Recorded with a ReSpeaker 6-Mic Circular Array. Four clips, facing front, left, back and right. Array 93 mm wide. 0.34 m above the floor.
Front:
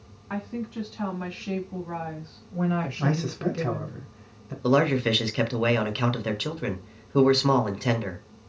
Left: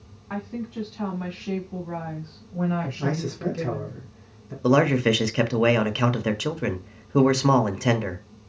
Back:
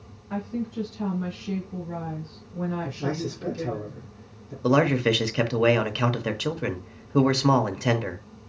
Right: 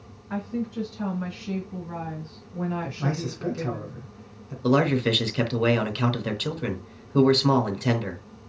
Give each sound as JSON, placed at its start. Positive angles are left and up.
{"t": 0.3, "sound": "a woman speaking", "azimuth_deg": 40, "distance_m": 3.0}
{"t": 3.0, "sound": "a man speaking", "azimuth_deg": 10, "distance_m": 2.0}
{"t": 4.6, "sound": "a man speaking", "azimuth_deg": 110, "distance_m": 0.8}